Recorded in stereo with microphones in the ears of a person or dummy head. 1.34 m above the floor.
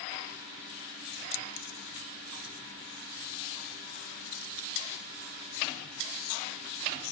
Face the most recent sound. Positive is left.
turn(degrees=60)  # may be behind; listen again after turning